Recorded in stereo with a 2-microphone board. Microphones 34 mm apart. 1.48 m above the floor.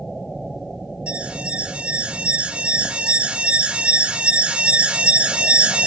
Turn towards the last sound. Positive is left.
turn(degrees=-30)  # may be behind; listen again after turning